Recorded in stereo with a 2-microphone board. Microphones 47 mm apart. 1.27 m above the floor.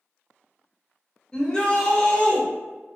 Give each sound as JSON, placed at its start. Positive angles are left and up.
{"t": 1.3, "sound": "a shout", "side_deg": 15, "distance_m": 0.8}